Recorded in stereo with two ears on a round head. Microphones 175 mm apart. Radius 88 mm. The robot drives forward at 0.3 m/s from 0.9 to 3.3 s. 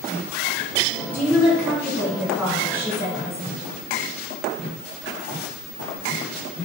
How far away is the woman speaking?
About 1.7 m.